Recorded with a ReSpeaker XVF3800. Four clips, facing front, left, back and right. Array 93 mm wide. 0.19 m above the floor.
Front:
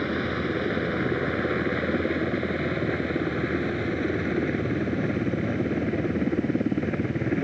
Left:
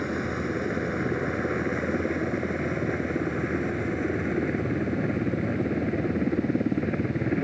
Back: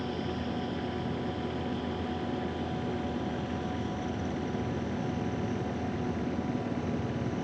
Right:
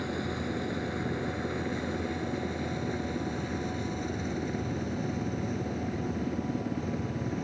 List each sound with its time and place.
0.0 s a helicopter: 25° left; by 7.4 s 40° left